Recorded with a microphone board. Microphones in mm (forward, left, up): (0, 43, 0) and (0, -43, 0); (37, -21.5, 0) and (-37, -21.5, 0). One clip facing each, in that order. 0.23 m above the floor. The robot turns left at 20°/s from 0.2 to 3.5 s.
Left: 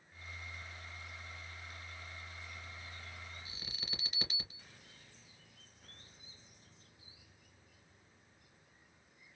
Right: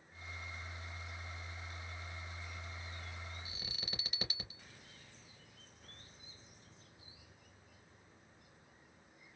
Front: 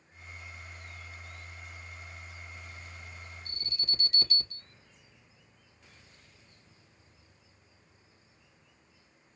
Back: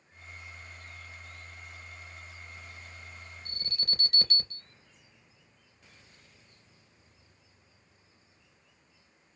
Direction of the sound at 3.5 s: 175° right.